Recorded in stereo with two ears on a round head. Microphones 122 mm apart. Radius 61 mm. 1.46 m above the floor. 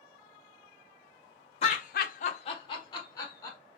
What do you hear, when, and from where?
1.6 s laughter: 45° left (ahead or behind), 0.6 m; by 3.6 s 20° left (ahead or behind), 1.8 m